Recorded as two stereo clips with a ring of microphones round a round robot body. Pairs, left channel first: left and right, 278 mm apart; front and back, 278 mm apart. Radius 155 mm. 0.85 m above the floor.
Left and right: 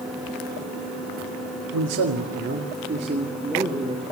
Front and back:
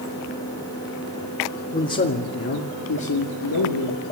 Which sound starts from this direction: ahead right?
A man speaking, at 1.7 s.